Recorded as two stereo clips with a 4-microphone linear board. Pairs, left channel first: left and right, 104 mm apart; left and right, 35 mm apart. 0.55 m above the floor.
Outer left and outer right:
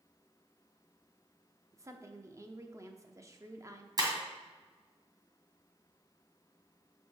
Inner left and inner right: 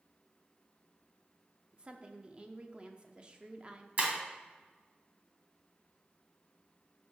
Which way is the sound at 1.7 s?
30° right (ahead or behind).